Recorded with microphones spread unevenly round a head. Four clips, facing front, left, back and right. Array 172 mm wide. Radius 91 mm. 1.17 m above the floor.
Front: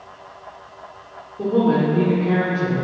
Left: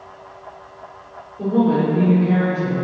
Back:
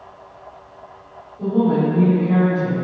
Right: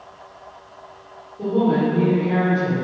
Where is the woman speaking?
5° left, 4 m.